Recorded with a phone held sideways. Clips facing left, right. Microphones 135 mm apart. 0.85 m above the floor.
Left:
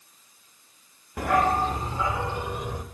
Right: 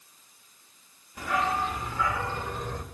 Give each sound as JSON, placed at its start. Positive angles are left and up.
{"t": 1.2, "sound": "a dog barking", "side_deg": 60, "distance_m": 0.6}